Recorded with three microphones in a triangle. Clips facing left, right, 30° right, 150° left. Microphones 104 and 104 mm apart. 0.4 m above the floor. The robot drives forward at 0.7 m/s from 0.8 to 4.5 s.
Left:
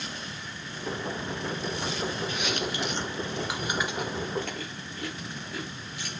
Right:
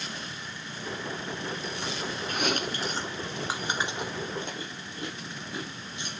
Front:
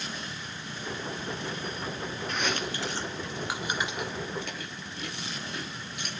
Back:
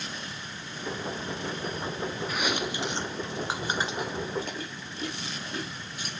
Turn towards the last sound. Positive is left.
turn(degrees=-160)